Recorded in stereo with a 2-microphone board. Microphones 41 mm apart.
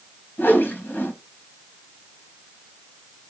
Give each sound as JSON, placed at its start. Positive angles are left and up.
{"t": 0.4, "sound": "a whoosh", "side_deg": 50, "distance_m": 1.4}